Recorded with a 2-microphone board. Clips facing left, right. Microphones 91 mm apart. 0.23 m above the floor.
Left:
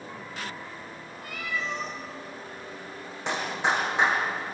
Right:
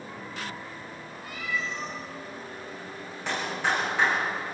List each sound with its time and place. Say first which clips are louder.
1.2 s a cat meowing: even; 60° left (ahead or behind), 7 m
3.3 s a clap: left 1 dB; 20° left (ahead or behind), 9.5 m